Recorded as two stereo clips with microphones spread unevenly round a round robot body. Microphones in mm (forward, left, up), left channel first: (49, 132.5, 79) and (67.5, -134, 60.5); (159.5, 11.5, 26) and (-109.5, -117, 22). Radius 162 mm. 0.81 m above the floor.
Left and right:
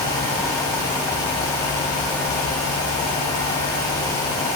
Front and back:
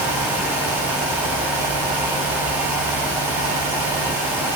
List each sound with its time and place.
Only background noise.